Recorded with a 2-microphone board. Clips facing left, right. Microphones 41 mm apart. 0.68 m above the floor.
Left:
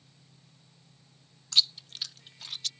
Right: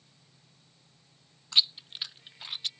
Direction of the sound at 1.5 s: 20° right (ahead or behind).